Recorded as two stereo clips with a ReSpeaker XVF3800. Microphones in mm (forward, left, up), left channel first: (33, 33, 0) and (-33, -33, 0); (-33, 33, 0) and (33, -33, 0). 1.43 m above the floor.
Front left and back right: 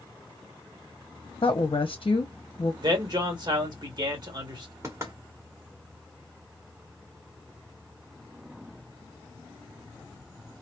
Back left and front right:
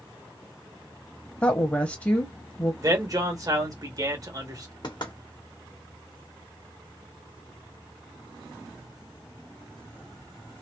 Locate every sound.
1.4 s a woman speaking: 70° left, 0.8 m
2.8 s a man speaking: 95° right, 1.4 m
4.8 s knocking: 165° left, 1.4 m